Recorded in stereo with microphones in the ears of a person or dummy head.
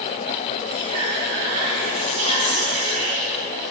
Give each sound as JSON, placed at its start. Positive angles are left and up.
{"t": 0.7, "sound": "whispering", "side_deg": -40, "distance_m": 3.0}